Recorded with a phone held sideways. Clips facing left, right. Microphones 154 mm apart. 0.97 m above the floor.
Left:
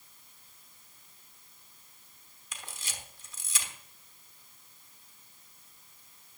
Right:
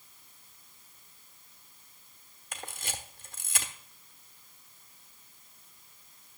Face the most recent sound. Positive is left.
turn(degrees=-55)  # may be behind; listen again after turning